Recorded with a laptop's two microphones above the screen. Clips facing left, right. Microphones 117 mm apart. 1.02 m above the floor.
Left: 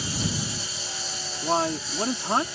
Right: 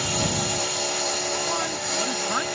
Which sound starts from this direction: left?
A man speaking, at 1.4 s.